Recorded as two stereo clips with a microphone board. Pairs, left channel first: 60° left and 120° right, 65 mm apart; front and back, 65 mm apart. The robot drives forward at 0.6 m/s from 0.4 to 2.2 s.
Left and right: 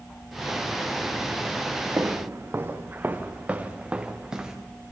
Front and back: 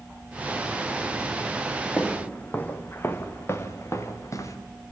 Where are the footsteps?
70° right, 2 m; by 4.6 s 40° right, 2.5 m.